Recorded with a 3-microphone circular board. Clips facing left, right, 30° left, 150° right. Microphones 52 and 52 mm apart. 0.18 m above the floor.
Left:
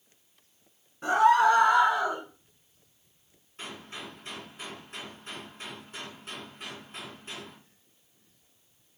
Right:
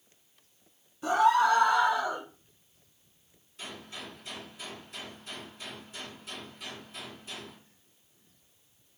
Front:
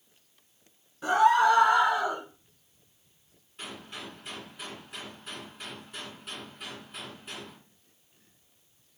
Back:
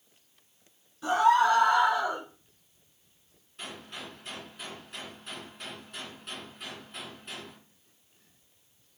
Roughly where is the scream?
Left.